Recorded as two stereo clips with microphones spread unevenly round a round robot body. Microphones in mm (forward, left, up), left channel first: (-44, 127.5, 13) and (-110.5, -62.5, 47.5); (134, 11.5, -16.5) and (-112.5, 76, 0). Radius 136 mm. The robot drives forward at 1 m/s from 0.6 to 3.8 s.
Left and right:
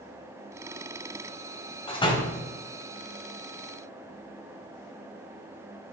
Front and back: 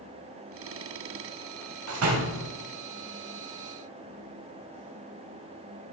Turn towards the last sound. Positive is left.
turn(degrees=155)